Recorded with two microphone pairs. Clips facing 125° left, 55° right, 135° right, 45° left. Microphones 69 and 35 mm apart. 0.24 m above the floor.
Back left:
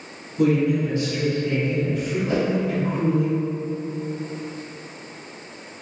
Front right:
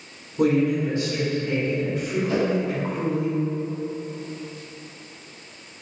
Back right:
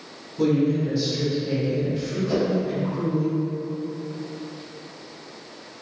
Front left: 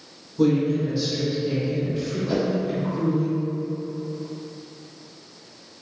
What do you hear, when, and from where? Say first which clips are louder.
0.4 s a woman speaking: back left 1 dB, even; 35° right, 1.2 m
2.3 s a whoosh: even, back right 1 dB; 105° left, 1.0 m